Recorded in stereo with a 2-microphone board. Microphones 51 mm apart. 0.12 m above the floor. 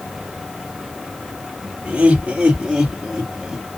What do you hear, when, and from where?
1.9 s laughter: 25° right (ahead or behind), 2.5 m; by 3.7 s 5° right (ahead or behind), 2.5 m